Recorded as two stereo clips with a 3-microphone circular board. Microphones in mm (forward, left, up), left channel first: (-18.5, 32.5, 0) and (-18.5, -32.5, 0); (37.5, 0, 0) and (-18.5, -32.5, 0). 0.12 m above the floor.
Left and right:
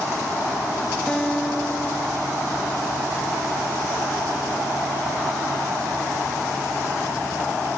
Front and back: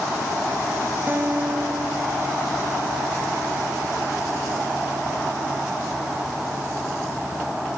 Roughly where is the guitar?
Behind.